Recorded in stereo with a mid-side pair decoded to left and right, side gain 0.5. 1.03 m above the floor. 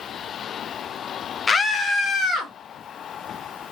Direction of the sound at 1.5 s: 35° left.